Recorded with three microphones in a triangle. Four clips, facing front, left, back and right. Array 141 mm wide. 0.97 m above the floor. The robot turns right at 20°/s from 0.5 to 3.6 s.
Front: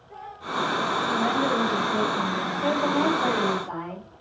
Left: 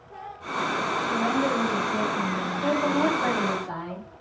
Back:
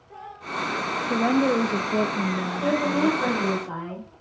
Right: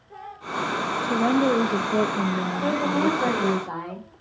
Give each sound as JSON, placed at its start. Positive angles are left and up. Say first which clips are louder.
{"t": 1.0, "sound": "a woman speaking", "louder": "right 6 dB, back 6 dB", "azimuth_deg": -135, "distance_m": 1.2}
{"t": 2.6, "sound": "a woman speaking", "louder": "even, back 1 dB", "azimuth_deg": -115, "distance_m": 4.5}